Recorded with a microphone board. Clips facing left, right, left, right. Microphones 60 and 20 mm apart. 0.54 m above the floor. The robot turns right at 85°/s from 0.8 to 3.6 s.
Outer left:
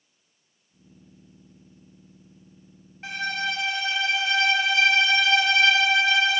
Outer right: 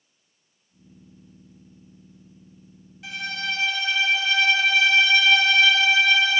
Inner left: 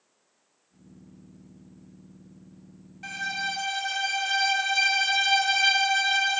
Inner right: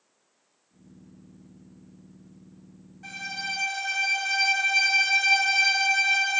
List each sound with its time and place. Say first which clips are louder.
3.0 s a violin: outer left 2 dB, inner left 3 dB; 120° left, 1.2 m; by 6.4 s 165° left, 1.2 m